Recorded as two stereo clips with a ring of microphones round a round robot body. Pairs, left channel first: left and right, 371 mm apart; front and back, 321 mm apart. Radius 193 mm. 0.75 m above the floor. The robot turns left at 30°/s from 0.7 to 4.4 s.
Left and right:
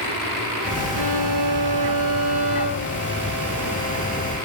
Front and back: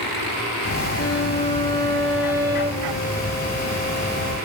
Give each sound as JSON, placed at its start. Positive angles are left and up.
{"t": 0.9, "sound": "a violin", "azimuth_deg": -55, "distance_m": 3.0}